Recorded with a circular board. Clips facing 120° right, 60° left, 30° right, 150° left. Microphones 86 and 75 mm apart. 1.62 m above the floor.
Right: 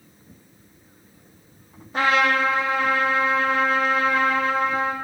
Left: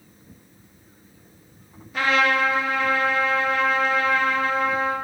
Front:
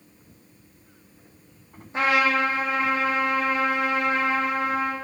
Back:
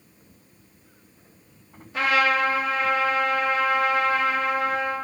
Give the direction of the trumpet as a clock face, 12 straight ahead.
3 o'clock.